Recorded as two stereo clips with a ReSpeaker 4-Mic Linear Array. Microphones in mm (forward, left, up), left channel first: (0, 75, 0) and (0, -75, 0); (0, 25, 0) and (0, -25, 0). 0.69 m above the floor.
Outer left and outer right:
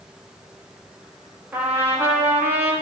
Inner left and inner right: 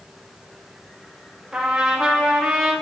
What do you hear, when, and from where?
1.5 s a trumpet: 15° right (ahead or behind), 0.9 m